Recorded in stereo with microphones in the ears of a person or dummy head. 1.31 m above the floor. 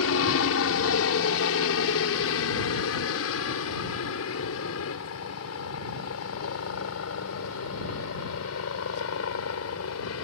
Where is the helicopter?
70° left (ahead or behind); by 10.2 s 75° left (ahead or behind).